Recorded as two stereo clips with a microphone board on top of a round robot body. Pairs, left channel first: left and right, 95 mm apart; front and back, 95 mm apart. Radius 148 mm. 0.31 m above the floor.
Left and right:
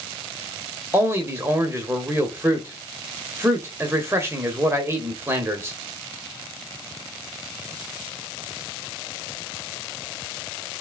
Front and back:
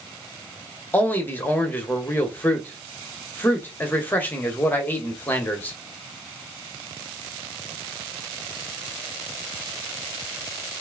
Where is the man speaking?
55° right, 1.2 m.